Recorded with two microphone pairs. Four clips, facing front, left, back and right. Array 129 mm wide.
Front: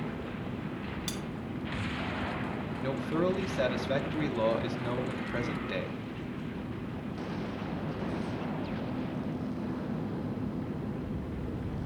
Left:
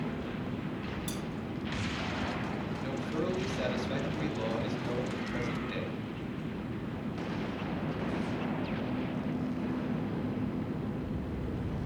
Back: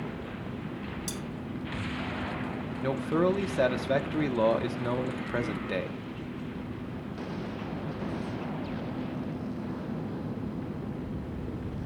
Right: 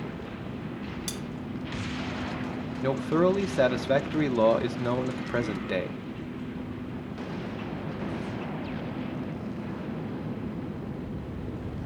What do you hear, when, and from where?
1.1 s cutlery clinking: 35° right, 1.2 m
2.8 s a man speaking: 120° right, 1.3 m